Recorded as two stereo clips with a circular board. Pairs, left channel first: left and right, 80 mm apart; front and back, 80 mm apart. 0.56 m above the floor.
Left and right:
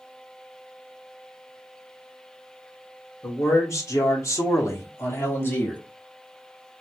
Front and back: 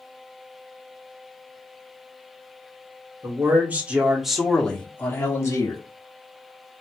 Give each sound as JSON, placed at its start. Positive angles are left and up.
{"t": 3.2, "sound": "a man speaking", "azimuth_deg": 130, "distance_m": 1.2}